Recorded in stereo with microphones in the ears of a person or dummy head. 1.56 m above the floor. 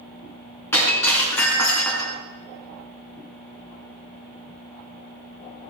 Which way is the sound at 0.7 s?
10° left (ahead or behind).